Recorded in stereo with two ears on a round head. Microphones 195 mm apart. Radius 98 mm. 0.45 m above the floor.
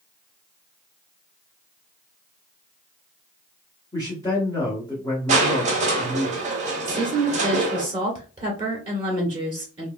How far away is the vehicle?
No vehicle in this recording.